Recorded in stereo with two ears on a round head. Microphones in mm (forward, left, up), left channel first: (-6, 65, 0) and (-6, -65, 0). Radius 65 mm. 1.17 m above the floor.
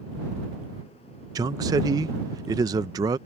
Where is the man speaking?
25° right (ahead or behind).